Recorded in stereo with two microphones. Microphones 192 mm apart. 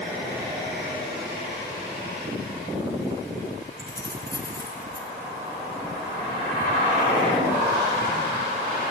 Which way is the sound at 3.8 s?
75° right (ahead or behind).